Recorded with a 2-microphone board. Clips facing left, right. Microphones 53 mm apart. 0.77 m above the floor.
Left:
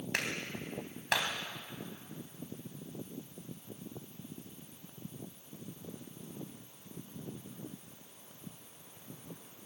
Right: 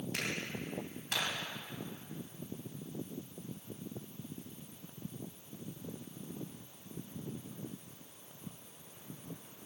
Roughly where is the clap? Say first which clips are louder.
Left 4 dB; left.